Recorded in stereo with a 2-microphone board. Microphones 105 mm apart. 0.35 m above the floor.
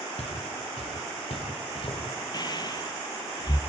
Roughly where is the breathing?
Left.